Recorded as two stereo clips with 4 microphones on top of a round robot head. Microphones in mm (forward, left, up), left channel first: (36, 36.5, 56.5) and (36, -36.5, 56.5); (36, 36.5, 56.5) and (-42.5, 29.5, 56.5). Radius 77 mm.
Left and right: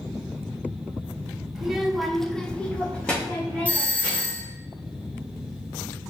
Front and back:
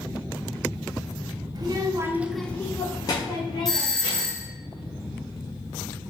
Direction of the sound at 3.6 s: 80° left.